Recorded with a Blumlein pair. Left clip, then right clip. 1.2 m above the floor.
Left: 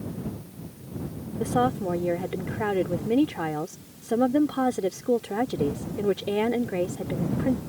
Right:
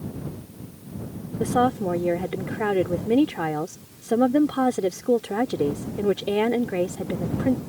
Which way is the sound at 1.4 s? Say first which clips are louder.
Right 3 dB; 5° right.